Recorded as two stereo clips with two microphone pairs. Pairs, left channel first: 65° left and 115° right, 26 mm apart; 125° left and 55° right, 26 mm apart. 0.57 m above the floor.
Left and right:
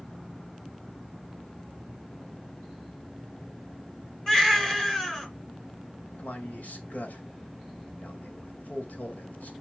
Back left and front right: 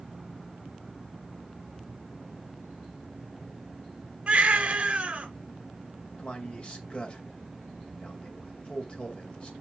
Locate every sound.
4.3 s a baby crying: 5° right, 2.5 m
6.2 s a man speaking: 80° left, 2.5 m